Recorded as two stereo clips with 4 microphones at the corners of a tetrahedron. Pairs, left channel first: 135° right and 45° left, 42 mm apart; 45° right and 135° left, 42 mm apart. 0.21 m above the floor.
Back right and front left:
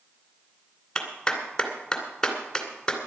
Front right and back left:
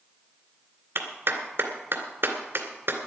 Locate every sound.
0.9 s a clap: 150° left, 2 m